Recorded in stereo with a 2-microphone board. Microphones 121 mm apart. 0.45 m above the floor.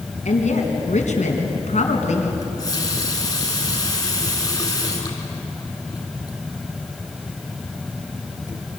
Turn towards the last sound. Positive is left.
turn(degrees=30)  # may be behind; listen again after turning